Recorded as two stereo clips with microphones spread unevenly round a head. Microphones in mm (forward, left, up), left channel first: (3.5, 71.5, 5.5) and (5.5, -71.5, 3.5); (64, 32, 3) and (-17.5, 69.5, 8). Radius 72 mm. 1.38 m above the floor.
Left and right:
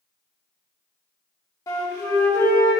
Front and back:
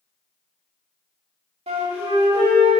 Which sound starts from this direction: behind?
A flute, at 1.7 s.